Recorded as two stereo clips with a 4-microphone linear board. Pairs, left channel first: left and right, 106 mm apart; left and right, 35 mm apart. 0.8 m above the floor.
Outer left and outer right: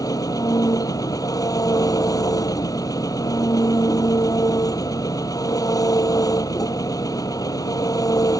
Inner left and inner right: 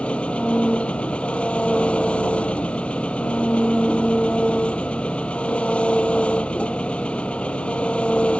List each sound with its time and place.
0.0 s an engine running: 35° left (ahead or behind)